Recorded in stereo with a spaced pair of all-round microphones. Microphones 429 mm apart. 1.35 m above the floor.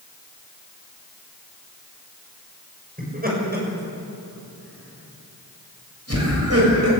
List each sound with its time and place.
3.0 s laughter: 20° right (ahead or behind), 6.5 m; by 6.9 s 40° right (ahead or behind), 8 m